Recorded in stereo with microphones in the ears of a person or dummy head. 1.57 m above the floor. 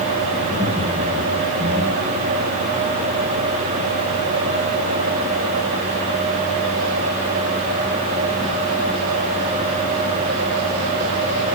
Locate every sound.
0.4 s laughter: 10° right (ahead or behind), 10 m